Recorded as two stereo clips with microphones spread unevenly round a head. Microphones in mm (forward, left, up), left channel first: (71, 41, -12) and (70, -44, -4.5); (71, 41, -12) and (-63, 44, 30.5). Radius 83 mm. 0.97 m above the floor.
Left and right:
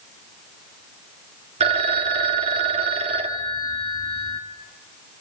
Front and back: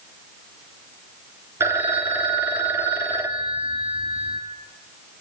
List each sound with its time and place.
1.6 s a phone ringing: 105° right, 1.3 m